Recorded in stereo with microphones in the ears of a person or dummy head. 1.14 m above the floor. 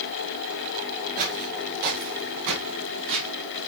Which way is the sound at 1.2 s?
45° right (ahead or behind).